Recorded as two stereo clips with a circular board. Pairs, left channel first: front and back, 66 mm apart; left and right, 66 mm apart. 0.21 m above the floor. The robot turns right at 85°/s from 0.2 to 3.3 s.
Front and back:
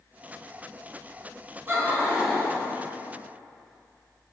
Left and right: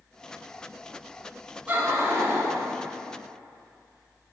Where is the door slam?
No door slam in this recording.